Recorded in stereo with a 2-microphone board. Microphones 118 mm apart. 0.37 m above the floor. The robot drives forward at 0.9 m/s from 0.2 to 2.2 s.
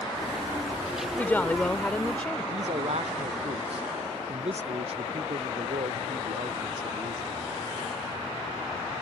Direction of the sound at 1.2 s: 15° left (ahead or behind).